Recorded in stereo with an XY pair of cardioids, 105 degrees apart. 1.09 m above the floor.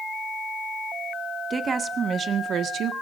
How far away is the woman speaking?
About 2.5 m.